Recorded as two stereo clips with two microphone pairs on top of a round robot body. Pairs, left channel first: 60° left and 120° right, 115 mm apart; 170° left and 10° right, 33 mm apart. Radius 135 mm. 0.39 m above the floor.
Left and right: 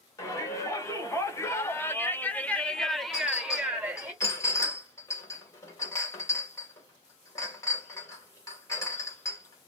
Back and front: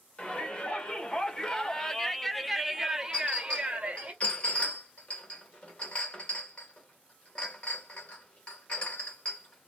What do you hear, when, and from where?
0.2 s a shout: 110° left, 1.6 m; by 4.1 s 45° right, 1.1 m
3.1 s a clink: 115° left, 1.8 m